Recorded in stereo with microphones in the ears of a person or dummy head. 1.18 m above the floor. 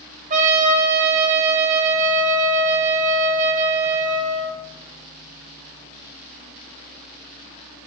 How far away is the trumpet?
About 1.6 m.